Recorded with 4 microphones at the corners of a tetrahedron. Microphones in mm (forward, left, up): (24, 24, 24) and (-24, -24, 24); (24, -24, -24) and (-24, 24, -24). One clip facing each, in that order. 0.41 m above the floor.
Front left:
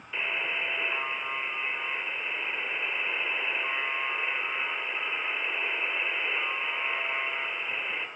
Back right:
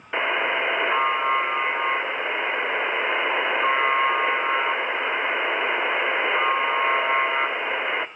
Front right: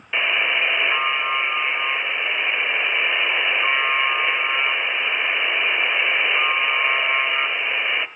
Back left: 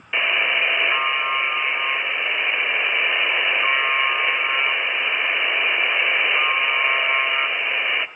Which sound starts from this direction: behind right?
A buzzer, at 0.1 s.